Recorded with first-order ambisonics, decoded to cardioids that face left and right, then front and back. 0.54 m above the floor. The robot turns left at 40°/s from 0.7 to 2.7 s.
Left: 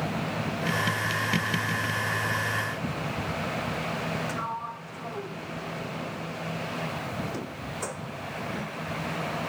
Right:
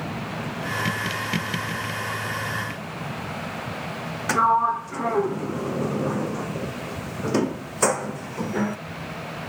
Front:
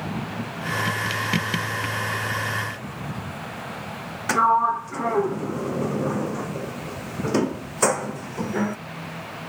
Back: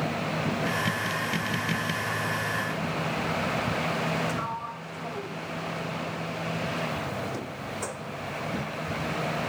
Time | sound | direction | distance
4.3 | a sliding door | 45° right | ?